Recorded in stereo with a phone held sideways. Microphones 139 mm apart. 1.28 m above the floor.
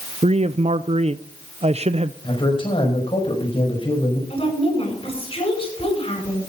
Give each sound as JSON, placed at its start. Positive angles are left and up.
{"t": 0.2, "sound": "a man speaking", "side_deg": -50, "distance_m": 0.5}
{"t": 2.2, "sound": "a man speaking", "side_deg": 40, "distance_m": 5.5}
{"t": 4.3, "sound": "a woman speaking", "side_deg": 40, "distance_m": 8.5}